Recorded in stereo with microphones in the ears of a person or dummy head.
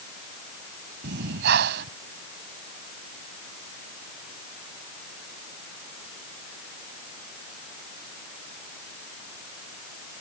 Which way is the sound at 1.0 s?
60° right (ahead or behind).